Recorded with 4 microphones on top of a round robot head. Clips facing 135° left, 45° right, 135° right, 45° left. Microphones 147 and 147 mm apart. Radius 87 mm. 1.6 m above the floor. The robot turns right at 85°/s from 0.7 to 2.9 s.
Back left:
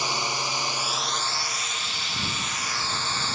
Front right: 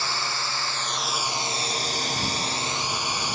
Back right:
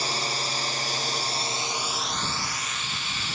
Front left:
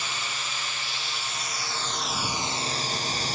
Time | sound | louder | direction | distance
0.0 | a drone | back left 2 dB, back right 5 dB | 160° right | ?